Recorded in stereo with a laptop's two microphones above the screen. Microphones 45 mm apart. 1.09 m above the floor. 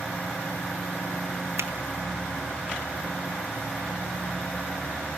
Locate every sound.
1.6 s a finger snap: 80° right, 2 m